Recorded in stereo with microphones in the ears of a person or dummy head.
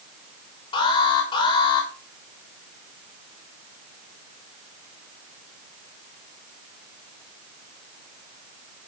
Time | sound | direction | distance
0.7 | an alarm | 30° left (ahead or behind) | 6 m